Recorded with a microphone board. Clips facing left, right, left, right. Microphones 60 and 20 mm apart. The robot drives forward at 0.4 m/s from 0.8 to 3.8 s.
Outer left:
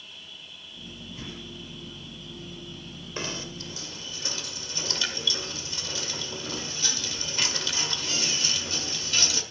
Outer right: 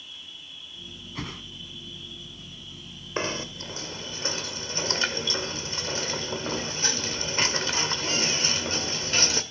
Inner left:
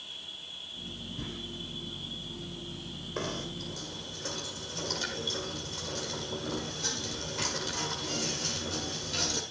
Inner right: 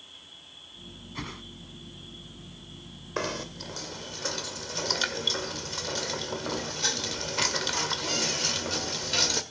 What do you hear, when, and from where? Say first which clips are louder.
0.0 s an insect: outer right 1 dB, inner left 6 dB; 55° left (ahead or behind), 8.5 m; by 9.5 s 45° left (ahead or behind), 9.5 m
1.1 s a whoosh: outer right 6 dB, inner right 5 dB; 75° right (ahead or behind), 2.0 m
3.2 s knocking: outer right 5 dB, inner right 4 dB; 35° right (ahead or behind), 1.9 m